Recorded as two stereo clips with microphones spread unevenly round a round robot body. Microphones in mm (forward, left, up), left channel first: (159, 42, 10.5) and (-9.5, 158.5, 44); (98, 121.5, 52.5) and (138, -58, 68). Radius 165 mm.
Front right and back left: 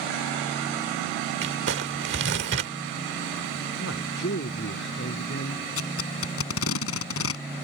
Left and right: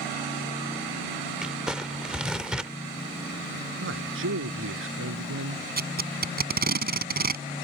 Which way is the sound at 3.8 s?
90° right.